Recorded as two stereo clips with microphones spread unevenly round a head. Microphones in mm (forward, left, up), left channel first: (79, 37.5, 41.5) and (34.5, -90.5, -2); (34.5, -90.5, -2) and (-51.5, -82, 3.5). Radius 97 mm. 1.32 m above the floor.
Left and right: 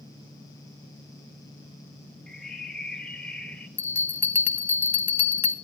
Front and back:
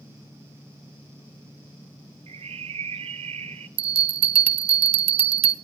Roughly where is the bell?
Behind left.